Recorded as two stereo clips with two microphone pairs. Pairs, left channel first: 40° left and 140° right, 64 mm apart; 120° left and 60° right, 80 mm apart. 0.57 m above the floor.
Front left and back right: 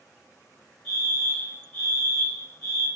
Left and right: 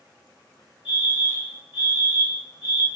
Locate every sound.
0.8 s a fire alarm: 15° right, 1.7 m